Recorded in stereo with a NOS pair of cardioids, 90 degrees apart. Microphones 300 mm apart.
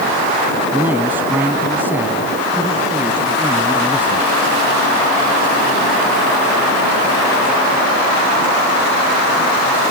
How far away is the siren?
No siren in this recording.